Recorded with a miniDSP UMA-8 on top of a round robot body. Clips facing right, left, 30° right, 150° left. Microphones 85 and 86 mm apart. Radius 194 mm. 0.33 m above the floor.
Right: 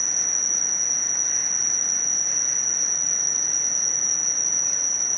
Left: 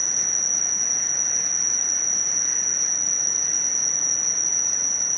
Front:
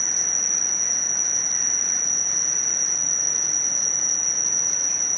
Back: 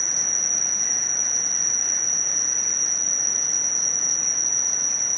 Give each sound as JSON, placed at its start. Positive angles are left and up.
{"t": 0.0, "sound": "an insect", "azimuth_deg": 180}